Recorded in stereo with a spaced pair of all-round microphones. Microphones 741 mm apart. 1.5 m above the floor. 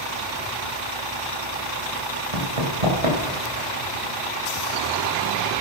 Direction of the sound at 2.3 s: 50° right (ahead or behind).